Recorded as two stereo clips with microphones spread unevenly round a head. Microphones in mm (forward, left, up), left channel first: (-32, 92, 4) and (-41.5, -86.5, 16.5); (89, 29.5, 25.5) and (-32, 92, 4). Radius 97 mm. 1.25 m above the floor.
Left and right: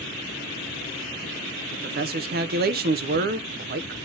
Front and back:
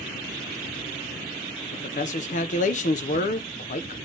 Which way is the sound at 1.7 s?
65° right.